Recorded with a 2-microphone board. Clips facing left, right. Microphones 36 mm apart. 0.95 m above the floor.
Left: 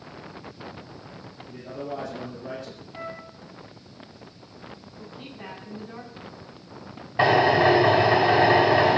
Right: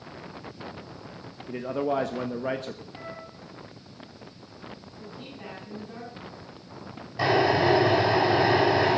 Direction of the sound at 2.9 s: 45° left (ahead or behind).